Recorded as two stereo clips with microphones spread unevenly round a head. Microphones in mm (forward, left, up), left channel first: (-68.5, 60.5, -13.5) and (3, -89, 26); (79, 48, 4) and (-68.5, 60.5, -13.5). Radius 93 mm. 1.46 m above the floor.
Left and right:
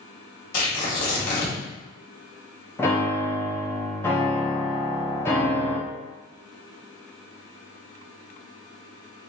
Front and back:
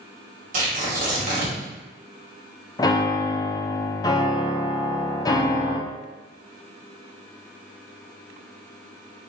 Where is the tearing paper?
145° left, 1.8 m.